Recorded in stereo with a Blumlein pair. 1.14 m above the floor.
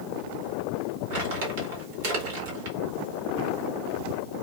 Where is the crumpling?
55° right, 1.6 m.